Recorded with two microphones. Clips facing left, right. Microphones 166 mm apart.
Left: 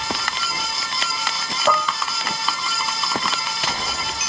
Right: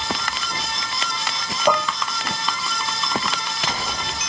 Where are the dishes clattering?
15° right (ahead or behind).